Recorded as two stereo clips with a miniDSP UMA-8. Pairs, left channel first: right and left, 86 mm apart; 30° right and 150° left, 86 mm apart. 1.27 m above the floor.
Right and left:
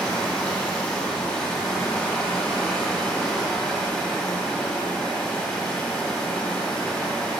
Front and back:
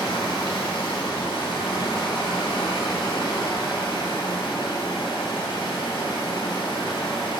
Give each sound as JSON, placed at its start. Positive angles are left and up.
{"t": 0.0, "sound": "running water", "azimuth_deg": -5, "distance_m": 2.0}